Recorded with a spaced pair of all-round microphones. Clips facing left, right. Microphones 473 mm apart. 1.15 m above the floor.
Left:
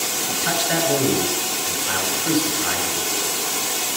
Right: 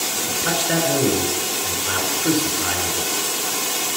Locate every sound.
0.3 s a man speaking: 65° right (ahead or behind), 4 m